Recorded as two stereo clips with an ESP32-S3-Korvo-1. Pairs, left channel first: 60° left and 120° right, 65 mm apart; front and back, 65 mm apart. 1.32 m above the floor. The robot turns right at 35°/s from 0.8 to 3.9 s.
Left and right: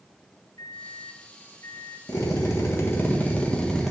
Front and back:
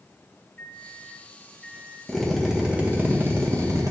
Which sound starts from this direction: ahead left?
A microwave, at 0.6 s.